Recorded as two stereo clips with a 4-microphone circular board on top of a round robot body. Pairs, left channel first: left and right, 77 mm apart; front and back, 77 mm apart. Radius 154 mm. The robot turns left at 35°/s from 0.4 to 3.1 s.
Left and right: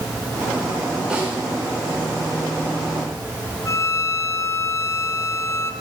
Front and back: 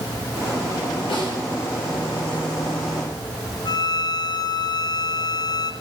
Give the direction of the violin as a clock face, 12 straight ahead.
11 o'clock.